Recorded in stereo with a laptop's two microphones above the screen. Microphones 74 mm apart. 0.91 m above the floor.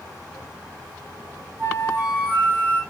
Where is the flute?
25° right (ahead or behind), 4 m.